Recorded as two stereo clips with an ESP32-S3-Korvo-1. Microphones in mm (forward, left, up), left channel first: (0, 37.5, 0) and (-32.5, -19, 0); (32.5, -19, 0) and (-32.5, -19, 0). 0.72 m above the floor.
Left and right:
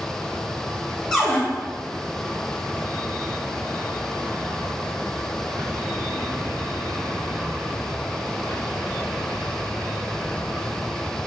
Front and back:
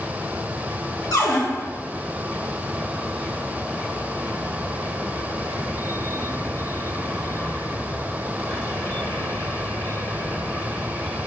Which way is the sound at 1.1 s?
25° right.